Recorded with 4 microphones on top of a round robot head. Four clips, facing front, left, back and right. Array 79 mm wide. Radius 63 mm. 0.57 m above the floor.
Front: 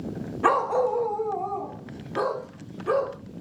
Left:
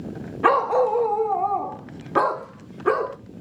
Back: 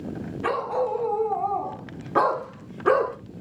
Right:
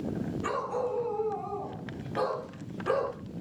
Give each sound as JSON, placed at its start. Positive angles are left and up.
{"t": 0.4, "sound": "a dog barking", "azimuth_deg": 65, "distance_m": 1.2}